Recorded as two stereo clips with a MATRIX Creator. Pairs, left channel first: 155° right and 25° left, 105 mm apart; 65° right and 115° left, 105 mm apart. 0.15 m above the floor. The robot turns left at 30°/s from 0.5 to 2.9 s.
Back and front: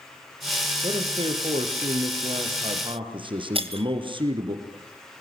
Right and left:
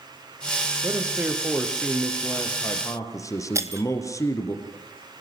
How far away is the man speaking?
About 3.5 m.